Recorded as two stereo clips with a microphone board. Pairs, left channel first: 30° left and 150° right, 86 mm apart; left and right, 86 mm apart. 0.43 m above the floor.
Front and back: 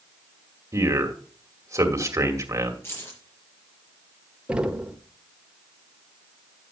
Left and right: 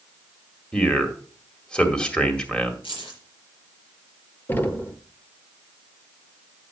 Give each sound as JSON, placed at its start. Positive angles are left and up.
{"t": 0.7, "sound": "a man speaking", "azimuth_deg": 170, "distance_m": 1.9}
{"t": 2.8, "sound": "keys jangling", "azimuth_deg": 90, "distance_m": 5.0}
{"t": 4.5, "sound": "knocking", "azimuth_deg": 140, "distance_m": 1.0}